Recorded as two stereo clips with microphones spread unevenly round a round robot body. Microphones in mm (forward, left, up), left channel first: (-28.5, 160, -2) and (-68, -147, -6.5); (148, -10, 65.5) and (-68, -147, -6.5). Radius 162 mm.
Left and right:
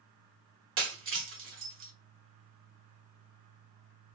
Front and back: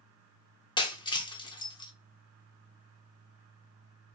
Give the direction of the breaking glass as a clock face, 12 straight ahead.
1 o'clock.